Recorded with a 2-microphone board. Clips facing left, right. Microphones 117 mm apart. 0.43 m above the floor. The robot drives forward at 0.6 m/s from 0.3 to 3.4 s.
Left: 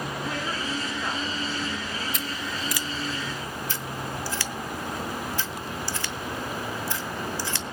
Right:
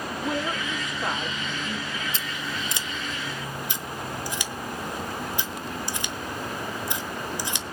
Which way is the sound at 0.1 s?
25° right (ahead or behind).